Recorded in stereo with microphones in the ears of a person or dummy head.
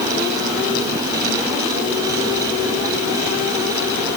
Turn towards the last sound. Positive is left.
No sound to turn to.